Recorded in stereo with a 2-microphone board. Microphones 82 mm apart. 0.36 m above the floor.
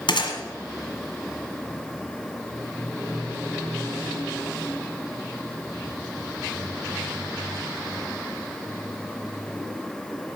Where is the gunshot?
75° left (ahead or behind), 1.6 m.